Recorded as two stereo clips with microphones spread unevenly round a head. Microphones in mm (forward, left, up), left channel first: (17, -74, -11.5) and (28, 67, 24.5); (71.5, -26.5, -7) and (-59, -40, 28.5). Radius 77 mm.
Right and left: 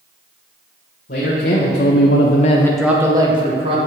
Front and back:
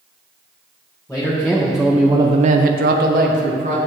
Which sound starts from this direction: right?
A man speaking, at 1.1 s.